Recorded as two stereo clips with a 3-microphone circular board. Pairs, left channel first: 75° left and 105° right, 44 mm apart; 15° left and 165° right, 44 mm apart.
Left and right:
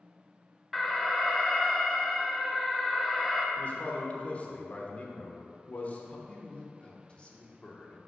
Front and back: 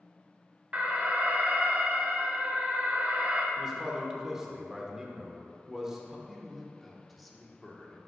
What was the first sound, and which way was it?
An alarm, 160° left.